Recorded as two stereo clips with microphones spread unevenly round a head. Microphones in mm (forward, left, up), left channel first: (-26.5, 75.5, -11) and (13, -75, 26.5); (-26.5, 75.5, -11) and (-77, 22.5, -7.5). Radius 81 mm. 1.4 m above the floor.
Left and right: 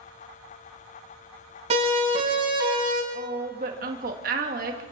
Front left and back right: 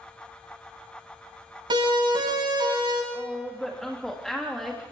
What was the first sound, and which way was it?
A siren, 125° right.